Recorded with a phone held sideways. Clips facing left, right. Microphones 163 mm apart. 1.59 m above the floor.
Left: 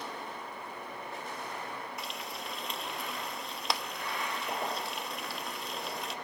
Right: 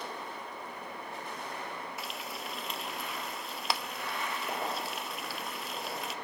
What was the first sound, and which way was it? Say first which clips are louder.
Frying: even; centre (ahead or behind).